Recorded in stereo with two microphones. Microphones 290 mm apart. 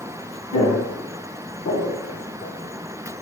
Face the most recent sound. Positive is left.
turn(degrees=50)  # may be behind; listen again after turning